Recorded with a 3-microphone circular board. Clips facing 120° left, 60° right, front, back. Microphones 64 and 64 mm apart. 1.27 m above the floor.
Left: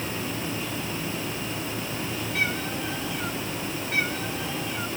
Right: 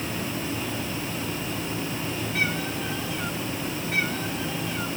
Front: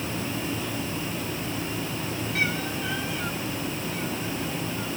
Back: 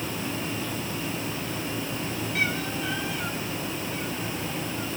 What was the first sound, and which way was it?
Only background noise.